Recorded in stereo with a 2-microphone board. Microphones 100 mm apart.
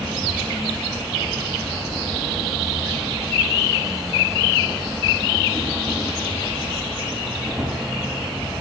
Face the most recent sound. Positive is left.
turn(degrees=-5)  # may be behind; listen again after turning